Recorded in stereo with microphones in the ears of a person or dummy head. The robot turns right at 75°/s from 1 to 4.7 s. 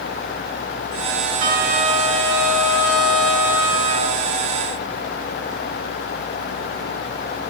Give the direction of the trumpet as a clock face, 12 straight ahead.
1 o'clock.